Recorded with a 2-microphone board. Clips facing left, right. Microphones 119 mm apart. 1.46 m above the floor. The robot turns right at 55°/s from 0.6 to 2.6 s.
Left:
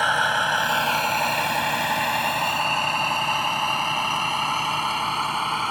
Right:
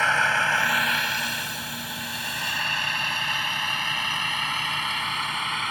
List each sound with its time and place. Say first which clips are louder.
0.0 s a vehicle: left 2 dB; 15° left (ahead or behind); by 5.7 s 35° left (ahead or behind)